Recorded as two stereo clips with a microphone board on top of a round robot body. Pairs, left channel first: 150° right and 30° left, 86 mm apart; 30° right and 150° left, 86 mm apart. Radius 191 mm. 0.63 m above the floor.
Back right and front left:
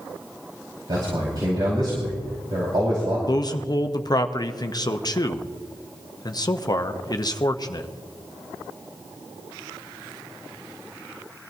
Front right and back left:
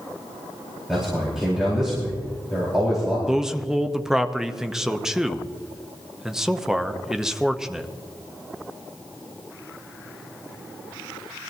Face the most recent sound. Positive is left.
turn(degrees=-125)